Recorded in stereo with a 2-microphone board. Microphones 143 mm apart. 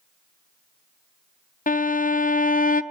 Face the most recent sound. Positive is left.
turn(degrees=70)  # may be behind; listen again after turning